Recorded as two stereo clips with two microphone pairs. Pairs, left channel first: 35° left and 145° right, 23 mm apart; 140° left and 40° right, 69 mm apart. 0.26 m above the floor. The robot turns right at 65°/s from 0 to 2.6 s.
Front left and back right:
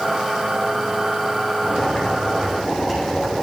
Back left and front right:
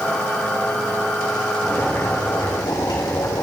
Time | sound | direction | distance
1.6 | boiling | 60° left | 6.5 m